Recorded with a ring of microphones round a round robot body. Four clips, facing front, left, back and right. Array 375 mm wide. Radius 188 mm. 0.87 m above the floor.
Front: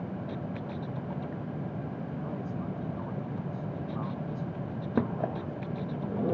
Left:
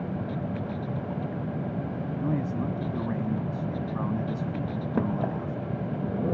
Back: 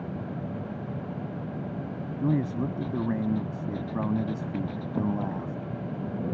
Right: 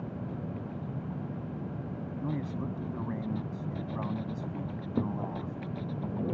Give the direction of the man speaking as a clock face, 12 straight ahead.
6 o'clock.